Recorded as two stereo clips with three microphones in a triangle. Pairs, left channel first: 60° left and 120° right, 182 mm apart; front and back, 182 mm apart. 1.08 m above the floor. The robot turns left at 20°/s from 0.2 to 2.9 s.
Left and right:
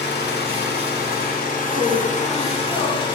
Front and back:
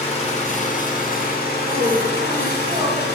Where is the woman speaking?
145° left, 1.8 m; by 3.0 s 120° left, 1.8 m.